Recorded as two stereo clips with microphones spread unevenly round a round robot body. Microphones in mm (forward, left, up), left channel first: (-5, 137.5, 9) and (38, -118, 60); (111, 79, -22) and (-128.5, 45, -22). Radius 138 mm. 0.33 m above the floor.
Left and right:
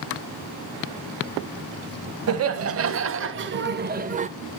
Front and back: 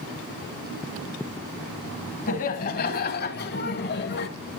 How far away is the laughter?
About 2 m.